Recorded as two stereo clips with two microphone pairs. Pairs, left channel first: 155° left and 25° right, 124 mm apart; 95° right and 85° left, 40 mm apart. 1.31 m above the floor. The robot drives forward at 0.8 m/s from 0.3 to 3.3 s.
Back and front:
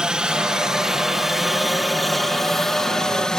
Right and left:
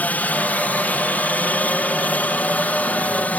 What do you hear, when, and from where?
0.0 s a helicopter: 105° right; by 3.4 s 120° right